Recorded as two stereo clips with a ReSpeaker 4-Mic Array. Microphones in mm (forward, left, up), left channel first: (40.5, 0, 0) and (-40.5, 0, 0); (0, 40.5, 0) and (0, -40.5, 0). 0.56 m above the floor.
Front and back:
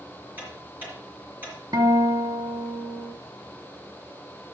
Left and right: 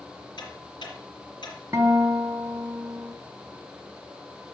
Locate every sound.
0.4 s ticking: 115° left, 4 m
1.7 s a guitar: 145° right, 1.1 m